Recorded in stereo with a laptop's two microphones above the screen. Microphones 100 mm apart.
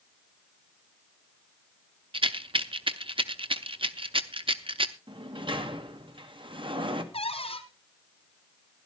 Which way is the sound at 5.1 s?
55° right (ahead or behind).